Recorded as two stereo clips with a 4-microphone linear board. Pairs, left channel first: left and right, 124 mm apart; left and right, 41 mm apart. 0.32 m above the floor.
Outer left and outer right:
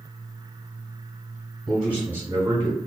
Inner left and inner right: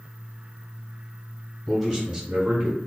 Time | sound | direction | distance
1.7 | a man speaking | centre (ahead or behind) | 1.0 m